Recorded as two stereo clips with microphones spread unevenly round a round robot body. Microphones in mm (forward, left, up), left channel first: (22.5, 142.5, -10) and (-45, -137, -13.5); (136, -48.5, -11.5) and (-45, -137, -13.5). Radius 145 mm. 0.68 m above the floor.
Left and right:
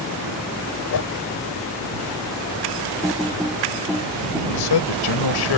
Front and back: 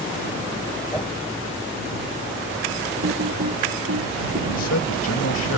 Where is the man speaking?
70° left.